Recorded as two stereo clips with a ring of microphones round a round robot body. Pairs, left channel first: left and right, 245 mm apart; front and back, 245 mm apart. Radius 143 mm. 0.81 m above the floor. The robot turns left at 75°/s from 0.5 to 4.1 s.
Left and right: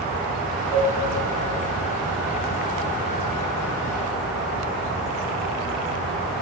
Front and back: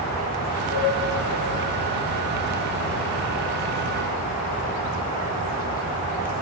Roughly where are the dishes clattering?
Ahead left.